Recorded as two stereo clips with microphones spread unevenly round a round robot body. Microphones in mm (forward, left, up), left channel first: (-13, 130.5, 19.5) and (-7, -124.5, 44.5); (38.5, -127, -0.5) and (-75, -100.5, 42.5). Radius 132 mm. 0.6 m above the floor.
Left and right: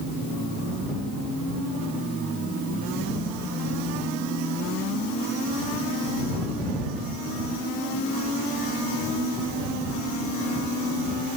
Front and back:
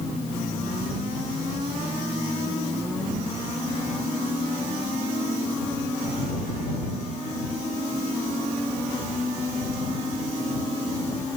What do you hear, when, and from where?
Only background noise.